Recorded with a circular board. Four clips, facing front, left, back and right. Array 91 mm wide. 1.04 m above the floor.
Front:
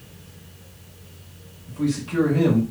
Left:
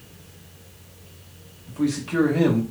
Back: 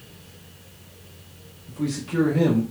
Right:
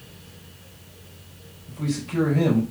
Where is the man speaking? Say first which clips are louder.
Left 5 dB, front 3 dB; 90° left, 1.7 m.